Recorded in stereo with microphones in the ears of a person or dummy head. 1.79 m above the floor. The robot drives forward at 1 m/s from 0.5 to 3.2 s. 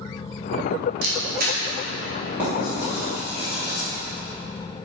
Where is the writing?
15° right (ahead or behind), 2.5 m; by 3.9 s 10° right (ahead or behind), 3.5 m.